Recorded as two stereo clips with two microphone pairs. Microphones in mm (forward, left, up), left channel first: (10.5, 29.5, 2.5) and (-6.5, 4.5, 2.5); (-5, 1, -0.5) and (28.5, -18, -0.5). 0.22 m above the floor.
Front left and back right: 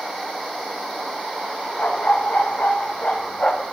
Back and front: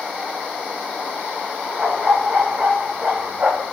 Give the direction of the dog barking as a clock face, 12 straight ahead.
11 o'clock.